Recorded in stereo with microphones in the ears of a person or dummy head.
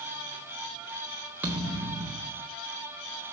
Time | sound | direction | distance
1.4 | a thud | 15° right (ahead or behind) | 1.4 m